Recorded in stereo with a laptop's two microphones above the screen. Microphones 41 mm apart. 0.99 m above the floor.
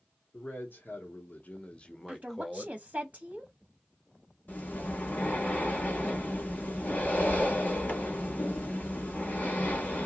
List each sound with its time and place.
0.3 s a man speaking: 55° left (ahead or behind), 1.1 m; by 2.7 s 5° right (ahead or behind), 1.1 m
2.1 s a woman speaking: 35° right (ahead or behind), 0.7 m
4.5 s breathing: 45° left (ahead or behind), 1.3 m